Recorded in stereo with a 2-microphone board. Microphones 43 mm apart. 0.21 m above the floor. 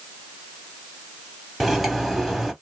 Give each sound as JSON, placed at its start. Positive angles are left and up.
{"t": 1.6, "sound": "cutlery clinking", "side_deg": -5, "distance_m": 0.7}